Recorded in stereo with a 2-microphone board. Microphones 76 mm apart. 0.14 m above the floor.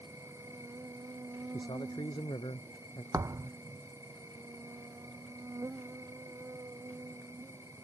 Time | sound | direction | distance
0.0 | an insect | 40° right (ahead or behind) | ?
1.5 | a man speaking | 80° left | ?
3.1 | a thud | 45° right (ahead or behind) | ?